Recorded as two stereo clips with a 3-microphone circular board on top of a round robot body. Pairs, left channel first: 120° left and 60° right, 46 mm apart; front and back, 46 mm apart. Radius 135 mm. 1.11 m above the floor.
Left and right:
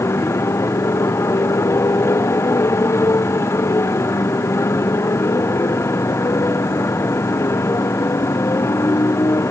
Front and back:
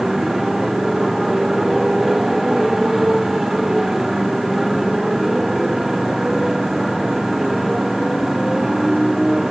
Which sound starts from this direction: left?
A motorcycle, at 0.0 s.